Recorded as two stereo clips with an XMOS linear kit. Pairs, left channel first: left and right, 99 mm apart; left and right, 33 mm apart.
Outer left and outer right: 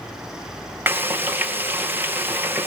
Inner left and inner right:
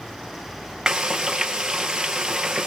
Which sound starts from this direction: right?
Frying, at 0.9 s.